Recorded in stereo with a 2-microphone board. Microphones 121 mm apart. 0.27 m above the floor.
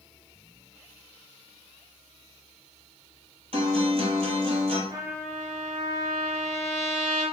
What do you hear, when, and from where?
3.5 s a guitar: 55° right (ahead or behind), 1.0 m
4.9 s a trumpet: 30° right (ahead or behind), 1.2 m